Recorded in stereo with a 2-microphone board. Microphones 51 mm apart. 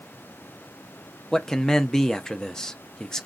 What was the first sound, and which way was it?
A man speaking, 15° left (ahead or behind).